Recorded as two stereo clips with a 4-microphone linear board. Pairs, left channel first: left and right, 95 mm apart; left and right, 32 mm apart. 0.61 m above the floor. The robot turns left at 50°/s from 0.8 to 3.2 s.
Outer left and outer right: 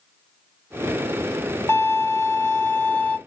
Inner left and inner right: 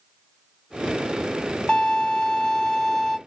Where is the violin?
100° left, 0.6 m; by 3.2 s 25° left, 0.6 m.